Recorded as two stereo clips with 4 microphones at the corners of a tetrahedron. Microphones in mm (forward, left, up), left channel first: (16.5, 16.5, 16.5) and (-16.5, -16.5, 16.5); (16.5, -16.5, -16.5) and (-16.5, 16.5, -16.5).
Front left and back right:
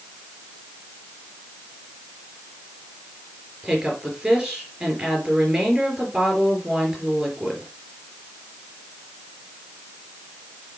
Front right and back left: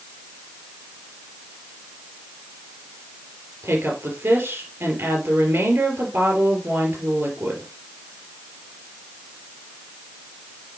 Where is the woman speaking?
150° left, 4.5 m.